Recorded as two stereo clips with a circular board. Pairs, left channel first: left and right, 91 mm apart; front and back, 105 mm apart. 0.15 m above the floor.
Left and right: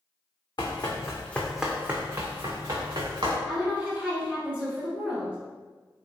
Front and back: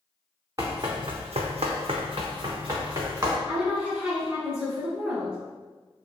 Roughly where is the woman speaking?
Behind right.